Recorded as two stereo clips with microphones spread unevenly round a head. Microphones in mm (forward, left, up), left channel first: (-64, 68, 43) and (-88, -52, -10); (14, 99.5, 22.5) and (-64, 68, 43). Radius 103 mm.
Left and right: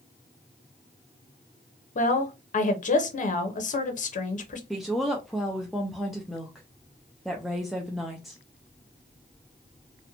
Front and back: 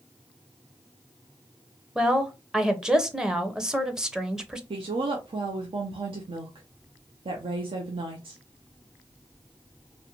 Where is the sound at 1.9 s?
115° left, 0.7 m.